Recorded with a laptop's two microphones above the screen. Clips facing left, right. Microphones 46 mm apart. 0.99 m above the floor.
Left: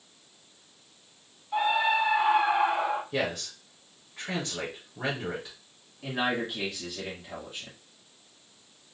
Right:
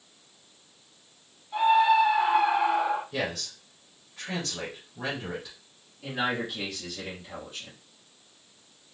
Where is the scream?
30° left (ahead or behind), 2 m; by 3.0 s 40° left (ahead or behind), 1.3 m.